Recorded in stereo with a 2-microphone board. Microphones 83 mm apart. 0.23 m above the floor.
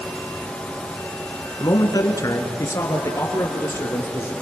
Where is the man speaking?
50° left (ahead or behind), 2 m; by 4.3 s 30° left (ahead or behind), 4.5 m.